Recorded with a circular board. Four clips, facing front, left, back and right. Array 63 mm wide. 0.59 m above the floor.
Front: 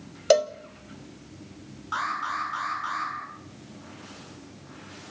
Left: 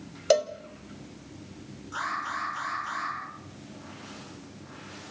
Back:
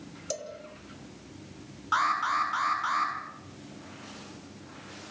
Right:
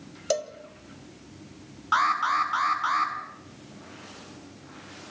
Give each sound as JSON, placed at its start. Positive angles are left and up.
{"t": 0.3, "sound": "a cowbell", "azimuth_deg": 20, "distance_m": 1.2}
{"t": 1.9, "sound": "an alarm", "azimuth_deg": -110, "distance_m": 7.5}